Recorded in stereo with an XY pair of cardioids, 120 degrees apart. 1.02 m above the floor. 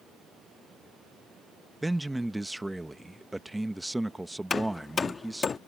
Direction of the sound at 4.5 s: 30° left.